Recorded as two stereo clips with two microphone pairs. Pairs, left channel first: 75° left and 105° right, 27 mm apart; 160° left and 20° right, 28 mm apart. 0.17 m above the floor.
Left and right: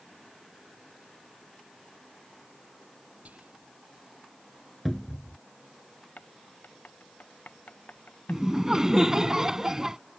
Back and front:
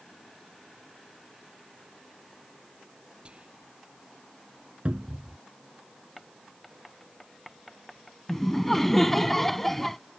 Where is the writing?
70° left.